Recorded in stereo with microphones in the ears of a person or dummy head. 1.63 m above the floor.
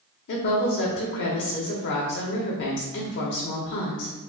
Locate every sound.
0.3 s a woman speaking: 55° left (ahead or behind), 0.8 m